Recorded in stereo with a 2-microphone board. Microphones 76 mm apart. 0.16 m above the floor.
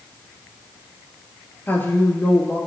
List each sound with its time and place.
1.7 s a woman speaking: 30° left (ahead or behind), 3.5 m